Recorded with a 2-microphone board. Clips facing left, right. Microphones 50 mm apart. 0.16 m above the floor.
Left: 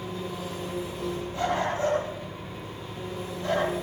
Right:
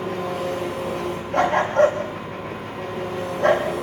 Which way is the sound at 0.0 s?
75° right (ahead or behind).